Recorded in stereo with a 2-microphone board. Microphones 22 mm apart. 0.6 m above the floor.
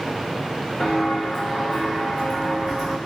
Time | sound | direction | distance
0.8 | footsteps | 40° left (ahead or behind) | 1.8 m